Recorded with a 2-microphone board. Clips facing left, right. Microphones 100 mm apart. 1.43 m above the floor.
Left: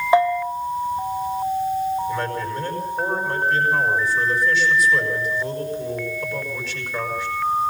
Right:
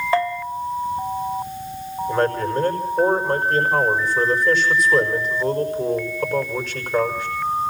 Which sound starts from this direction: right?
A man speaking, at 2.1 s.